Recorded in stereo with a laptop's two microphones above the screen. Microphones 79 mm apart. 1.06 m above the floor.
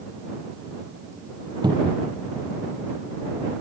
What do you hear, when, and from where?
1.6 s a cupboard door: 70° right (ahead or behind)